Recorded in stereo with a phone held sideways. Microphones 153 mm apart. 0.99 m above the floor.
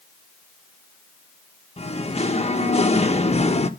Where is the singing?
45° left (ahead or behind), 1.2 m.